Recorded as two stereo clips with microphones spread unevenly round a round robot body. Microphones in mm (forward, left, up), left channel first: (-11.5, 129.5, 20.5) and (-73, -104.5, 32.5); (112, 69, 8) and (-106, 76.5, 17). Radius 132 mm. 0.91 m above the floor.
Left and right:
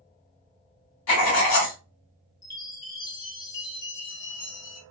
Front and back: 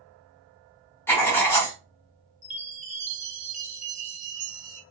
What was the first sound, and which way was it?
Writing, 75° left.